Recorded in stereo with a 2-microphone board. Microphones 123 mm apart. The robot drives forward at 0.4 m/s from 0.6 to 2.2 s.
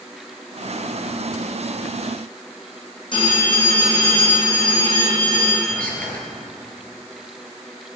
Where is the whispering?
10° left (ahead or behind), 3.5 m.